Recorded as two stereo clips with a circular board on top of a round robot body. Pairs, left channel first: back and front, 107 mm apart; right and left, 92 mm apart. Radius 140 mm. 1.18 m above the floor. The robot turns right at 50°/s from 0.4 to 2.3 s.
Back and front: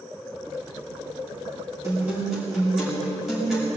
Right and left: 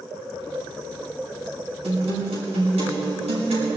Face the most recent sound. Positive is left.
turn(degrees=85)